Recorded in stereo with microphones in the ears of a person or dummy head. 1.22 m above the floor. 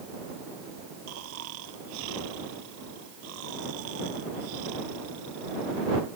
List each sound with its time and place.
1.1 s snoring: 80° right